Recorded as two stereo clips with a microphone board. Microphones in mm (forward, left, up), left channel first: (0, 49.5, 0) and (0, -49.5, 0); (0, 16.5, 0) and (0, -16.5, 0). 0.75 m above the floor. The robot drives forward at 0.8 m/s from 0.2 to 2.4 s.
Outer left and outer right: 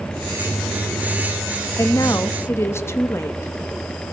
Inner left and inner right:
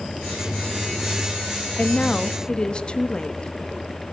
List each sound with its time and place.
1.8 s a woman speaking: 35° left (ahead or behind), 0.7 m; by 3.5 s 25° left (ahead or behind), 0.9 m